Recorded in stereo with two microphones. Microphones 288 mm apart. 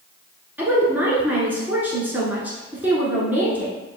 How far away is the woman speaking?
About 1.1 m.